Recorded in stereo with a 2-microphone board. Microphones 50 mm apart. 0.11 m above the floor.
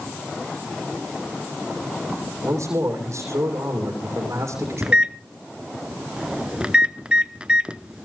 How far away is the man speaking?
About 5.5 m.